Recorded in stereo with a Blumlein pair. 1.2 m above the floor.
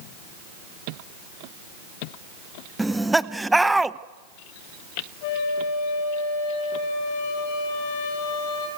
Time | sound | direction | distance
2.8 | laughter | 5° right | 0.7 m
5.2 | a flute | 50° left | 5 m